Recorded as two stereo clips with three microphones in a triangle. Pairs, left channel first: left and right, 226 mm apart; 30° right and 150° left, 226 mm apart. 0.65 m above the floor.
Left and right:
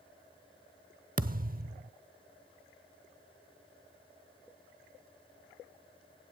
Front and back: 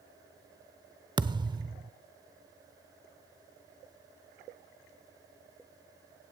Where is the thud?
140° right, 0.8 m.